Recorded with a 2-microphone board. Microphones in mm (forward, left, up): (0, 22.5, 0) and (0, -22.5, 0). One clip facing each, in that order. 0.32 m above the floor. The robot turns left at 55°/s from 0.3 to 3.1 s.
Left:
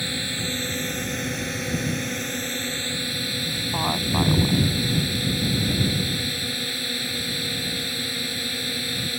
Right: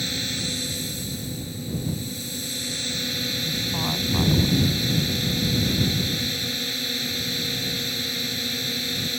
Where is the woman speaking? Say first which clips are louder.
Left 4 dB; 30° left (ahead or behind).